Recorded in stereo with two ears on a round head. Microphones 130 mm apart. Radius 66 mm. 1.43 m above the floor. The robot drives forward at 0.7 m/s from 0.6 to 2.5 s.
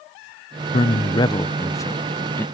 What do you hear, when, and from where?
0.7 s a man speaking: 45° left (ahead or behind); by 2.5 s 15° left (ahead or behind)